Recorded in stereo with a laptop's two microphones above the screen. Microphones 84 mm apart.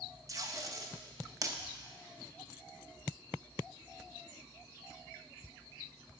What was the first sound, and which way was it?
Tape being pulled, 40° right (ahead or behind).